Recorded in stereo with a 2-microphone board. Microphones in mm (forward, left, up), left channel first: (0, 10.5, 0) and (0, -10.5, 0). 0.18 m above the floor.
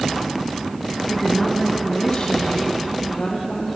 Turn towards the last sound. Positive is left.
turn(degrees=75)  # may be behind; listen again after turning